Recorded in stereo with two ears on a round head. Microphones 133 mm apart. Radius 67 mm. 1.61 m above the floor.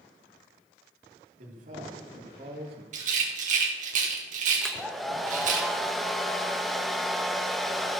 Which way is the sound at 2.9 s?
55° right (ahead or behind).